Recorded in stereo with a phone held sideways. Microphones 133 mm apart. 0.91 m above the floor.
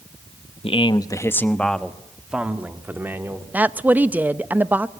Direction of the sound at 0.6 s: 45° left (ahead or behind).